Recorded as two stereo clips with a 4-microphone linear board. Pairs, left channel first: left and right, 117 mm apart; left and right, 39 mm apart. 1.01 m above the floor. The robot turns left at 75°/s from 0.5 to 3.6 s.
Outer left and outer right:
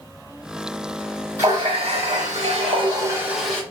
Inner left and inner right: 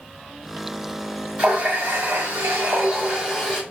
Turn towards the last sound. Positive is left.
turn(degrees=170)